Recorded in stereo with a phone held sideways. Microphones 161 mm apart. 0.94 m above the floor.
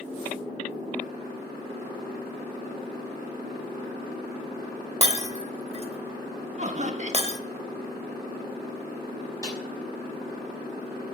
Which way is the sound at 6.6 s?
45° right (ahead or behind).